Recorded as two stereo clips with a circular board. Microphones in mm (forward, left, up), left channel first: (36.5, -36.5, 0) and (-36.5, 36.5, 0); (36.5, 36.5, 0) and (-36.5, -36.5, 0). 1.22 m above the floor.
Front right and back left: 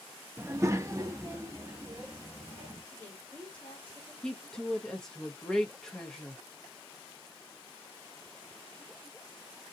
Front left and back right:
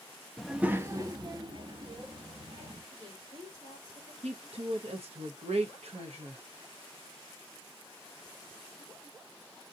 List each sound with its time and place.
0.4 s a child speaking: 120° left, 0.5 m; by 2.8 s 160° right, 1.9 m
2.9 s a woman speaking: 120° right, 3.5 m
4.2 s a woman speaking: 130° right, 0.9 m